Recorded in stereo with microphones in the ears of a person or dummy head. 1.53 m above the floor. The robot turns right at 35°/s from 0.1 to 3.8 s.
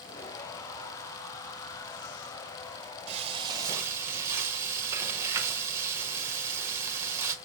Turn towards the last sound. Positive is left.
turn(degrees=-15)  # may be behind; listen again after turning